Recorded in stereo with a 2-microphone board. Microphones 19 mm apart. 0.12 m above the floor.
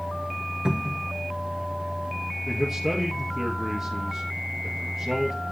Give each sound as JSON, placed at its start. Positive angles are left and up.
{"t": 0.7, "sound": "a cupboard door", "side_deg": -50, "distance_m": 0.7}
{"t": 2.5, "sound": "a man speaking", "side_deg": -5, "distance_m": 1.8}